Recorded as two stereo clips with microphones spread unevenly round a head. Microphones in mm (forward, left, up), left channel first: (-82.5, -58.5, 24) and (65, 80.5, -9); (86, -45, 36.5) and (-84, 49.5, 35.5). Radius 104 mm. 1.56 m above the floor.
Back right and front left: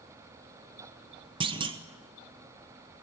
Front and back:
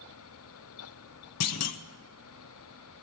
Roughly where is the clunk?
Ahead right.